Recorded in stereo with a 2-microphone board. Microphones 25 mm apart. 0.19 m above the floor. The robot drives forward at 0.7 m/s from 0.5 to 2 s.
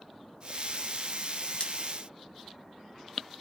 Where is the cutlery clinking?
45° left (ahead or behind), 1.2 m; by 1.7 s 50° left (ahead or behind), 1.2 m.